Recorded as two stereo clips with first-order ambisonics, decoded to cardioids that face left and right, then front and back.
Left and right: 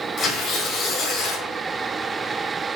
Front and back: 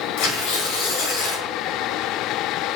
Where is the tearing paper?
25° left, 3.5 m.